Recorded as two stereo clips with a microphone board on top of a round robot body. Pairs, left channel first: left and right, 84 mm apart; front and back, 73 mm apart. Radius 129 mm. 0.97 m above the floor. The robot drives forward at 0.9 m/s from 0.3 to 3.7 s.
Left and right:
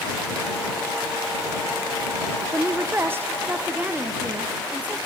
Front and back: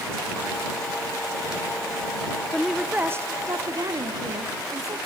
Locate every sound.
2.5 s a woman speaking: 80° right, 0.9 m; by 5.0 s 160° right, 1.3 m